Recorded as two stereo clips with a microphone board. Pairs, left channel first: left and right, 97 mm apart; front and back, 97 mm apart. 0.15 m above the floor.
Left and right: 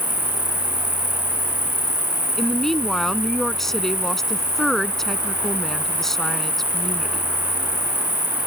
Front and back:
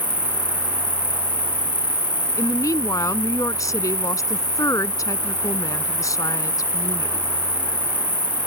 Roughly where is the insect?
Right.